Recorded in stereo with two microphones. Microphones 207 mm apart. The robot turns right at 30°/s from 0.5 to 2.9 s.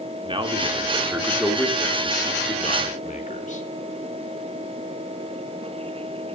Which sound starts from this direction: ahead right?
A man speaking, at 0.2 s.